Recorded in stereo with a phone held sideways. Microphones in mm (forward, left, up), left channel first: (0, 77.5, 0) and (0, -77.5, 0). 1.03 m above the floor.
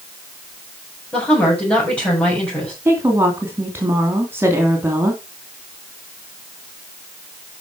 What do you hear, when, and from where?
1.1 s a woman speaking: 10° left (ahead or behind), 6.5 m
2.9 s a woman speaking: 15° right (ahead or behind), 2.5 m